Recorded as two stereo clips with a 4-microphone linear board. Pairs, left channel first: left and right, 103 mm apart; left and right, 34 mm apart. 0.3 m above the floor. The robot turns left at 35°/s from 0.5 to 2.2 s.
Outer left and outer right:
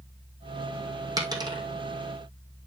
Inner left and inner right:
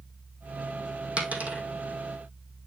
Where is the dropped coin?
35° right (ahead or behind), 2 m; by 1.6 s 50° right (ahead or behind), 2 m.